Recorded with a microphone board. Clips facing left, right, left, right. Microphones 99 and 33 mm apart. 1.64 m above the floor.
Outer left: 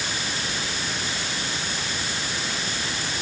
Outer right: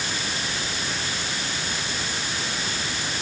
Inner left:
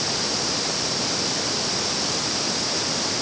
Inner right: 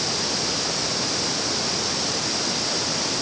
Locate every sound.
Only background noise.